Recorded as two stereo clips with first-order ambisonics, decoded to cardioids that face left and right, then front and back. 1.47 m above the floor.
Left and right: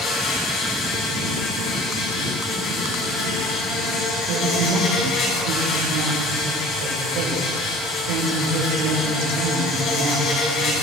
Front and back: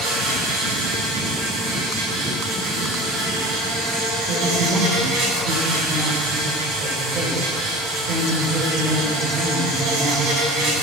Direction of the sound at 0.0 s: 140° left.